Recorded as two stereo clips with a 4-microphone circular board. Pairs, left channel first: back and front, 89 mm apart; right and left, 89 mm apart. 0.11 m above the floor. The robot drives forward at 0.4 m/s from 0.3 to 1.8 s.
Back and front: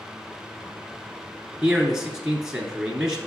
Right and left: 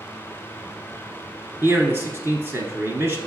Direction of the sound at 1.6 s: 70° left.